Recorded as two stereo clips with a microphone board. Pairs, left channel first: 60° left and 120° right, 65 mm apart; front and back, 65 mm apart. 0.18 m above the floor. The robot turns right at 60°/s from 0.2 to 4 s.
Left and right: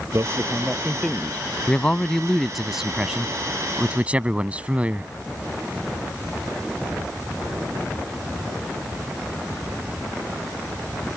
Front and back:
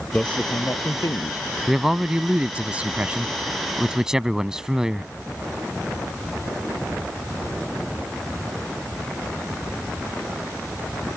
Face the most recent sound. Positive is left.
turn(degrees=-115)